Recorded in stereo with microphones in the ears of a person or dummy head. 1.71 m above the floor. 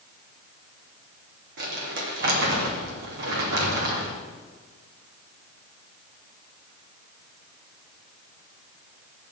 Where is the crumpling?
55° right (ahead or behind), 3 m.